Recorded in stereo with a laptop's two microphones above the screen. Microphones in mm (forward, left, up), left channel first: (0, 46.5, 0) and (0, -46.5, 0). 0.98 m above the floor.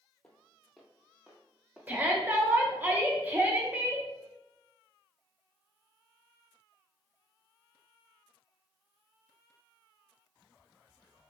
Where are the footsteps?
10° left (ahead or behind), 1.0 m; by 2.9 s 25° right (ahead or behind), 1.7 m.